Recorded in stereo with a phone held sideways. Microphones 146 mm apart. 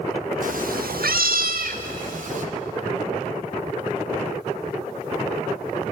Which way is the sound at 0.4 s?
60° right (ahead or behind).